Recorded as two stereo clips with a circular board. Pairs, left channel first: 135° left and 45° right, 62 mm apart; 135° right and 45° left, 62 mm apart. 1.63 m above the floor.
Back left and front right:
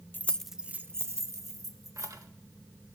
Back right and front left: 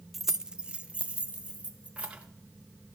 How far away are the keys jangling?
About 0.6 m.